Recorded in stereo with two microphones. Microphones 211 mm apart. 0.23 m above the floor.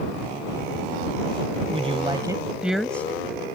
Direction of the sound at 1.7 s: 30° right (ahead or behind).